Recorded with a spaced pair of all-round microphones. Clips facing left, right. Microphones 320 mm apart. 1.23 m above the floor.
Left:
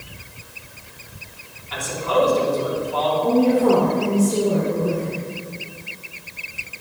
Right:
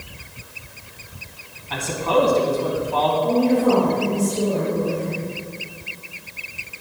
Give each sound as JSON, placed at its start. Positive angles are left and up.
{"t": 1.7, "sound": "a man speaking", "side_deg": -70, "distance_m": 2.5}
{"t": 3.2, "sound": "a woman speaking", "side_deg": 75, "distance_m": 3.0}